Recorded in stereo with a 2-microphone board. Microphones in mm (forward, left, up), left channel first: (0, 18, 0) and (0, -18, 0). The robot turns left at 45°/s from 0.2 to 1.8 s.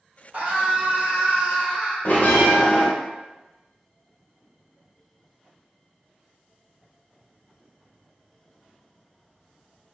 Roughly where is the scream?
Right.